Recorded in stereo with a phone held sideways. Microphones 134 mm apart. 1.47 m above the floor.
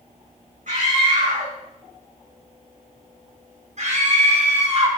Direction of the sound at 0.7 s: 65° right (ahead or behind).